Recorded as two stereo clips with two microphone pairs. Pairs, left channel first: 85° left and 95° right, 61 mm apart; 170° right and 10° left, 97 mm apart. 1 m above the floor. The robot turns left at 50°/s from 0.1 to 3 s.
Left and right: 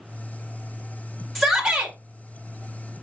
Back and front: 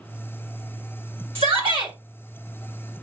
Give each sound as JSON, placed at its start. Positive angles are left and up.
{"t": 1.4, "sound": "a shout", "azimuth_deg": 0, "distance_m": 1.7}